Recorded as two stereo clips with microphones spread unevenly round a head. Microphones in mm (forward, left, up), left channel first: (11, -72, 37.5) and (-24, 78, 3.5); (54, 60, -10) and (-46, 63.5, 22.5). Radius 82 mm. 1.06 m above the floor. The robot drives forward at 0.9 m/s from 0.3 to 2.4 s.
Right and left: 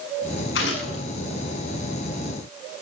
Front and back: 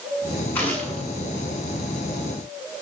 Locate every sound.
0.6 s a gunshot: 80° right, 8 m; by 1.0 s 85° right, 7.5 m